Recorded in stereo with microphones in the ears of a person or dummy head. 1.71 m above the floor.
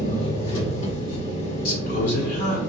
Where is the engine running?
80° left, 1.3 m.